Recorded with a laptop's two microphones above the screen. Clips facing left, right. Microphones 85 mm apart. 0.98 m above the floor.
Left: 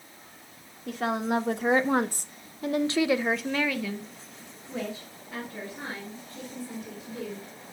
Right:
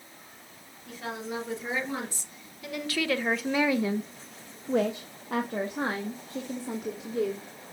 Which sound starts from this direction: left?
A woman speaking, at 0.9 s.